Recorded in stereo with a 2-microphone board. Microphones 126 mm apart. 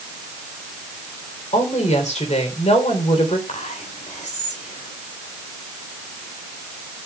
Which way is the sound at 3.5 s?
75° left (ahead or behind).